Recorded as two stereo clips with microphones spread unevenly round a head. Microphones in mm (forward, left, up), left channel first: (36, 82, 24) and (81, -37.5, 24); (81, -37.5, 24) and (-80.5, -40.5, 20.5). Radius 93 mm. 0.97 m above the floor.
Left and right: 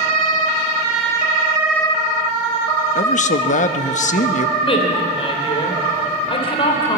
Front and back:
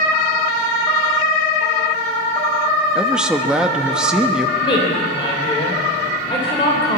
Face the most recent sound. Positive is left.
turn(degrees=65)